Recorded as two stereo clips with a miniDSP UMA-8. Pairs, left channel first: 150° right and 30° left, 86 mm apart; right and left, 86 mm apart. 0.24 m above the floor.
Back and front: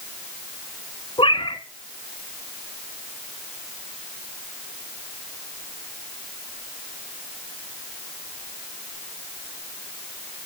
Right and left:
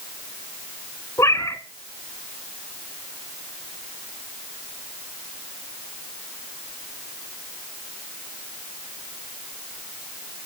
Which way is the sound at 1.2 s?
140° right.